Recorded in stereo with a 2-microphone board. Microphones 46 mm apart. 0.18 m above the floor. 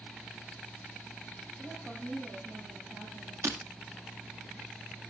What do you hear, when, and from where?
1.6 s a woman speaking: 25° right (ahead or behind), 8.5 m; by 3.3 s 35° right (ahead or behind), 8 m
3.4 s breaking glass: 85° right, 1.8 m